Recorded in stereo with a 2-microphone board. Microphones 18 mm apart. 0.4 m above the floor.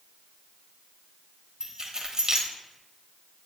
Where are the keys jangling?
35° right (ahead or behind), 1.0 m.